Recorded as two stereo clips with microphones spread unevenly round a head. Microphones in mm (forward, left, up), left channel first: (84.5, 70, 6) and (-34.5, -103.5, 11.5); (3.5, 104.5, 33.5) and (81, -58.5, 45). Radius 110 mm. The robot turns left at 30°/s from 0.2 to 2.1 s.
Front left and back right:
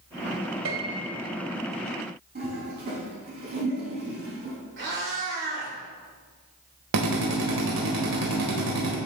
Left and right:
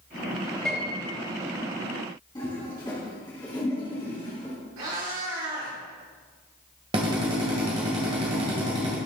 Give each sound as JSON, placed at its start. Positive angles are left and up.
{"t": 0.7, "sound": "a piano", "azimuth_deg": -160, "distance_m": 2.0}
{"t": 2.4, "sound": "a toilet flushing", "azimuth_deg": -175, "distance_m": 3.5}
{"t": 4.8, "sound": "a cat meowing", "azimuth_deg": -90, "distance_m": 3.0}
{"t": 6.9, "sound": "a drill", "azimuth_deg": -130, "distance_m": 1.9}